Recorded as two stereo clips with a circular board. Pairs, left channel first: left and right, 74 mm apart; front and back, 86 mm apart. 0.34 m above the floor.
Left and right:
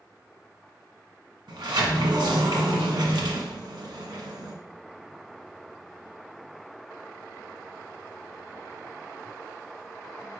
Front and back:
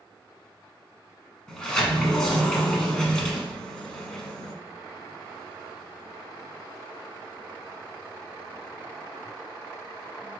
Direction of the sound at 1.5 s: 80° right.